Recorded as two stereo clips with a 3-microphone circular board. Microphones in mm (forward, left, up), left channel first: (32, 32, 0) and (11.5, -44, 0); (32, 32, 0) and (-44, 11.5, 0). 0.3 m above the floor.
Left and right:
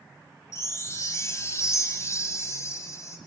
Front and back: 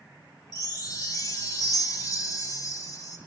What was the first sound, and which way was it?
A chime, 40° left.